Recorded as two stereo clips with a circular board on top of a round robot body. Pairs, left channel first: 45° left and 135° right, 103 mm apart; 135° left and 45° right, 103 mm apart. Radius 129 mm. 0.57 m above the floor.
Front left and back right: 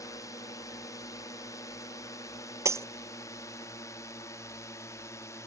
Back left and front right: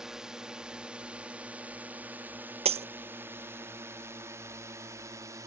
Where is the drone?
35° left; by 5.5 s straight ahead.